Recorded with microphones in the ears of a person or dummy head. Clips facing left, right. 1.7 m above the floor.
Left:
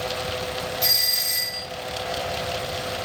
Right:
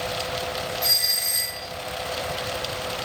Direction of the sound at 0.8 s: 35° left (ahead or behind).